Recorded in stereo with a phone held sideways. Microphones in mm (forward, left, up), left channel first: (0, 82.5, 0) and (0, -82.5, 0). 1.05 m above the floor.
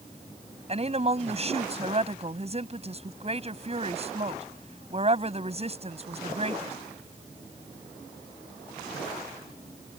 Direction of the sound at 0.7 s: 40° right (ahead or behind).